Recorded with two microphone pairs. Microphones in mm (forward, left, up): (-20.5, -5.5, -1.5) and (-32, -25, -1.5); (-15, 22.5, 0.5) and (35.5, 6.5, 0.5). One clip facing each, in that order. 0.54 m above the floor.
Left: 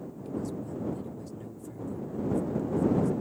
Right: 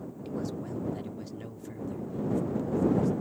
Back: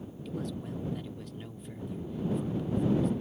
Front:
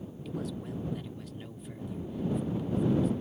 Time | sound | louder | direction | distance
0.2 | a man speaking | even, even | 105° right | ?